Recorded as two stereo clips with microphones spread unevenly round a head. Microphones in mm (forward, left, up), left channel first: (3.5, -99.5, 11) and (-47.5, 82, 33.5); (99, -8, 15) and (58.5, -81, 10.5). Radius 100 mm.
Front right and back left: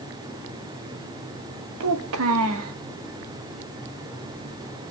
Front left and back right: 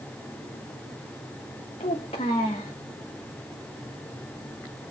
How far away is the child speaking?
About 1.2 m.